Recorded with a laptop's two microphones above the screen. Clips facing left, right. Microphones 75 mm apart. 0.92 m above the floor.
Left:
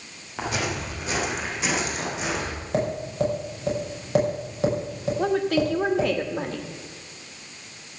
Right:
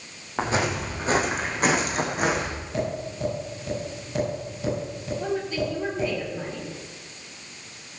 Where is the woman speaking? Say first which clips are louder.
Left 5 dB; 70° left (ahead or behind), 1.3 m.